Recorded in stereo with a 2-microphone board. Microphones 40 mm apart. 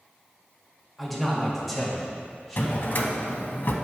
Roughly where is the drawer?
Left.